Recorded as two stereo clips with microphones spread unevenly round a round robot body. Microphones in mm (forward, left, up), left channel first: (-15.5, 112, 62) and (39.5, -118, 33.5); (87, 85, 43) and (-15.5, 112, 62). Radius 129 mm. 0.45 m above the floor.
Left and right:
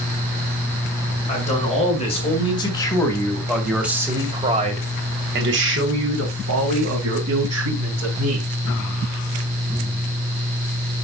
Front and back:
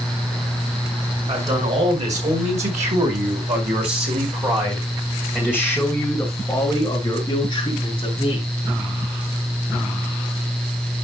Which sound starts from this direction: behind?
A man speaking, at 1.3 s.